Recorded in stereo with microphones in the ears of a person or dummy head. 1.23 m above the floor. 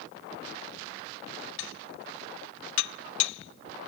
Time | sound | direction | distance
1.6 | dishes clattering | 80° left | ?